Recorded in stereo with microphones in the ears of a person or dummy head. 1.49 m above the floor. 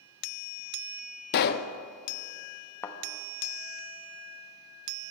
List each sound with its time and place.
1.3 s a pop: 50° left (ahead or behind), 0.5 m
2.8 s a thud: 15° left (ahead or behind), 0.9 m